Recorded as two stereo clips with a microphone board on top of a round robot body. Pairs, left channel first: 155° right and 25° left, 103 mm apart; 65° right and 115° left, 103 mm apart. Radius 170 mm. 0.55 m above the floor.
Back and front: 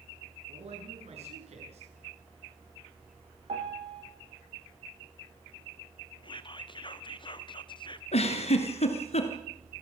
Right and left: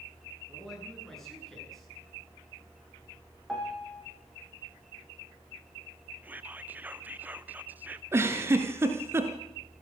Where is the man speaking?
20° left, 9 m.